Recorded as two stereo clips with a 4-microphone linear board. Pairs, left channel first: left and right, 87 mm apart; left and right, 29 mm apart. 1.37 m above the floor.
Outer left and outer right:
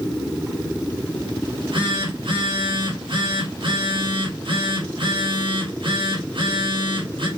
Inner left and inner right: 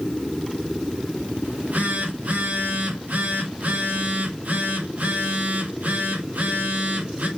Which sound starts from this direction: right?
A phone buzzing, at 1.4 s.